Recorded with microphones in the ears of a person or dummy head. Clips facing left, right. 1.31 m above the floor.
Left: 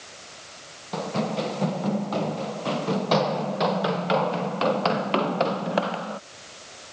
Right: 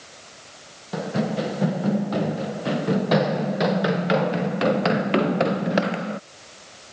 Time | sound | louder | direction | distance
0.9 | running footsteps | right 2 dB | 10° right (ahead or behind) | ?